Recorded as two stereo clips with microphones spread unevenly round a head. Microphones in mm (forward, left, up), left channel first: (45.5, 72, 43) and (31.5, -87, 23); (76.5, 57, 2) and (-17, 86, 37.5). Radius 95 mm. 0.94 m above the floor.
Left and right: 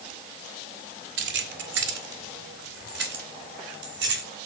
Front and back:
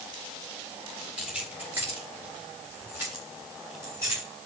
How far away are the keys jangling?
About 1.7 m.